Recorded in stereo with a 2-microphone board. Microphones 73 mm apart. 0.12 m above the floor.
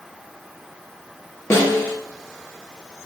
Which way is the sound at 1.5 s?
40° left (ahead or behind).